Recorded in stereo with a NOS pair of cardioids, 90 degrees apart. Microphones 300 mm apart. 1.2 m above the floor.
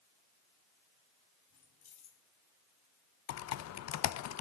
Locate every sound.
1.5 s keys jangling: 70° left, 3 m
3.3 s typing on a keyboard: 60° left, 0.8 m